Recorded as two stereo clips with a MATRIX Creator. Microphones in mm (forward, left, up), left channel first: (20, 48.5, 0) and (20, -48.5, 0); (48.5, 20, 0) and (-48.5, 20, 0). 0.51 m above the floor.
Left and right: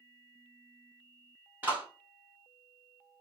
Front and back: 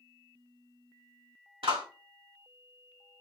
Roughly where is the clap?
Behind.